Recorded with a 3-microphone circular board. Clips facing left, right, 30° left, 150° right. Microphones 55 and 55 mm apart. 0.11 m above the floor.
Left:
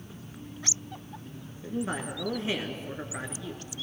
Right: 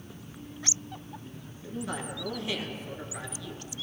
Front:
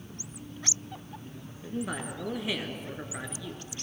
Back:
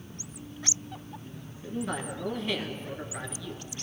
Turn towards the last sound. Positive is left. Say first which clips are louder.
# left 3 dB, back 1 dB
turn(degrees=105)